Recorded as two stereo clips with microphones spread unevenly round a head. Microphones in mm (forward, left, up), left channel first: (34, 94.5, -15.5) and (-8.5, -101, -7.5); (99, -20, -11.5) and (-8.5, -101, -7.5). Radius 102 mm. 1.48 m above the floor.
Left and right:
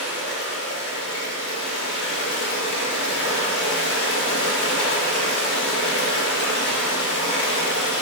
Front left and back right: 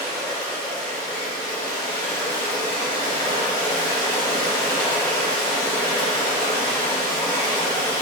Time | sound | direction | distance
0.0 | running water | 120° left | 1.7 m